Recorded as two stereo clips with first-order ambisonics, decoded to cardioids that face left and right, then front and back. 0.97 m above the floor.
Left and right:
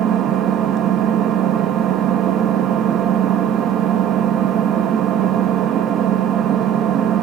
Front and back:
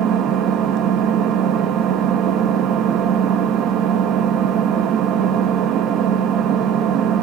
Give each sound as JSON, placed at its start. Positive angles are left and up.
{"t": 0.0, "sound": "an engine running", "azimuth_deg": -140, "distance_m": 1.0}